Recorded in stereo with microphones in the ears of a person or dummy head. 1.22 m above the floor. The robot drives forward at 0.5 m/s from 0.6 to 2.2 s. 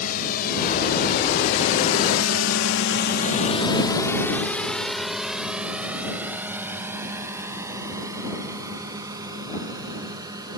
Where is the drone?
45° left (ahead or behind); by 10.6 s 20° right (ahead or behind).